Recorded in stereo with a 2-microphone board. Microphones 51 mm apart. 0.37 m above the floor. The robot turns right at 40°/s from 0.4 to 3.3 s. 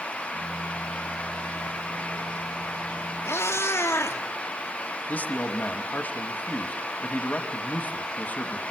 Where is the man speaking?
30° left (ahead or behind), 2 m.